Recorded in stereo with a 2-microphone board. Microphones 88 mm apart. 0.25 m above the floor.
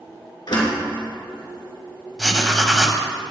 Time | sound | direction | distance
0.5 | a door slam | 55° left (ahead or behind) | 3 m
2.2 | writing | centre (ahead or behind) | 1.1 m